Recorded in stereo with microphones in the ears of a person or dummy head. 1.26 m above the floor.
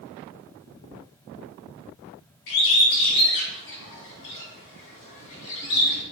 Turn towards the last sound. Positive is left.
turn(degrees=65)  # may be behind; listen again after turning